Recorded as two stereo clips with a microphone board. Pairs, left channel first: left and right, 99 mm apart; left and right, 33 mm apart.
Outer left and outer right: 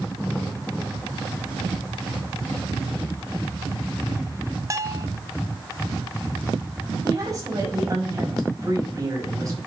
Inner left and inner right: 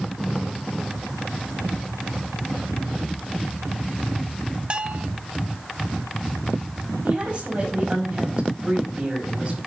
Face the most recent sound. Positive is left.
turn(degrees=-35)  # may be behind; listen again after turning